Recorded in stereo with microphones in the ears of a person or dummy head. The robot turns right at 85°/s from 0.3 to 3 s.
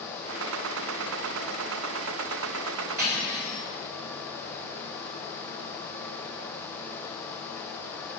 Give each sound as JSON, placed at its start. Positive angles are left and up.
{"t": 3.0, "sound": "cutlery clinking", "side_deg": -50, "distance_m": 5.0}